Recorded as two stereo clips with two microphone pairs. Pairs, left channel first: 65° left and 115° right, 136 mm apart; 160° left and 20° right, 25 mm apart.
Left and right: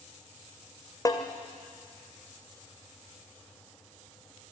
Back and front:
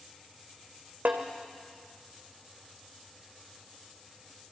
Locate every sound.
1.1 s a snare drum: 5° left, 2 m